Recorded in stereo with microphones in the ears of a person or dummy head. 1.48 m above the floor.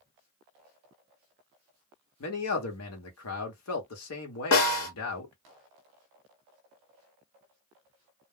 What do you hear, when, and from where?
2.2 s a man speaking: 75° left (ahead or behind), 1.1 m
4.5 s a snare drum: 70° left (ahead or behind), 1.2 m